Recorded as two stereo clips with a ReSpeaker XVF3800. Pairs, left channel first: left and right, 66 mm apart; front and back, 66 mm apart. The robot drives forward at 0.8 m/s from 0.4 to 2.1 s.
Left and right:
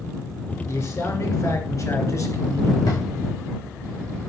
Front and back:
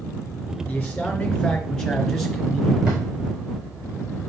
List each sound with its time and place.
0.7 s a man speaking: 60° left, 3 m; by 2.8 s 85° left, 3 m
2.9 s a drawer: 105° left, 4 m